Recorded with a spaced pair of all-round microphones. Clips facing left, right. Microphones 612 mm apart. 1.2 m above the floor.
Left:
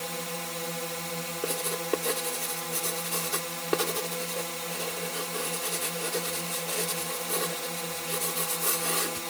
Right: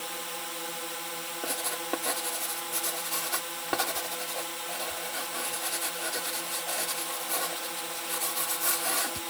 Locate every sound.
0.0 s a drone: 65° left (ahead or behind)
1.4 s writing: 20° right (ahead or behind)